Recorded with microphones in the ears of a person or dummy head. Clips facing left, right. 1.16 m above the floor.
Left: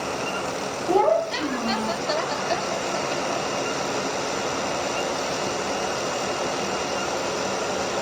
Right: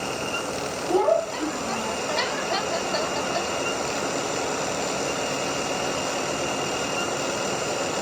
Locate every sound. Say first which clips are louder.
0.9 s a child speaking: left 1 dB; 70° left (ahead or behind), 0.9 m; by 2.0 s 55° left (ahead or behind), 0.8 m